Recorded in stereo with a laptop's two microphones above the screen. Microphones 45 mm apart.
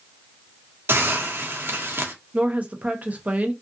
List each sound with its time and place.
0.9 s a hiss: 55° right (ahead or behind), 0.5 m
2.3 s a woman speaking: 30° right (ahead or behind), 0.8 m